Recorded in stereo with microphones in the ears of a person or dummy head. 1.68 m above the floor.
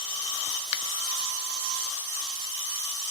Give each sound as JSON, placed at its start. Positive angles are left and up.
{"t": 0.7, "sound": "a finger snap", "side_deg": 30, "distance_m": 0.7}